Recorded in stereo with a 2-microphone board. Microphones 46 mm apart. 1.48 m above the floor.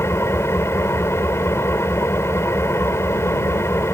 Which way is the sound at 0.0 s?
75° left (ahead or behind).